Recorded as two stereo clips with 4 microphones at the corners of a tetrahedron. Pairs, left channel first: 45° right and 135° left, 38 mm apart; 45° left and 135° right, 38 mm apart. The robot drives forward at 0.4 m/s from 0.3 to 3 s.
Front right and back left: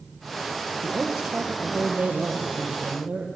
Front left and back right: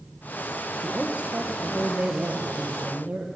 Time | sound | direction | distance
0.7 | a woman speaking | 175° right | 1.7 m